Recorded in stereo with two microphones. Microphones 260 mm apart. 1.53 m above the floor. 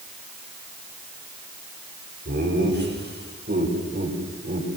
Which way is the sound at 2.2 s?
45° right (ahead or behind).